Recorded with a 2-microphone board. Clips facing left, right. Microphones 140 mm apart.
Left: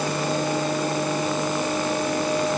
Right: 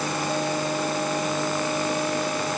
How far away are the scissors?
No scissors in this recording.